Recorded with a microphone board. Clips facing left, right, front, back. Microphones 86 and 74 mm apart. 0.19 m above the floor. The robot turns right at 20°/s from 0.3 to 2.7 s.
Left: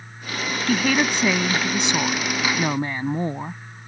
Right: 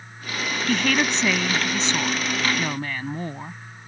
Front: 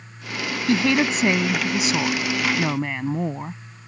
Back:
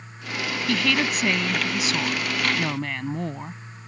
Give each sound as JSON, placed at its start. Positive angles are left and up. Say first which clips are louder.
{"t": 0.7, "sound": "a woman speaking", "louder": "left 2 dB, front 5 dB", "azimuth_deg": 15}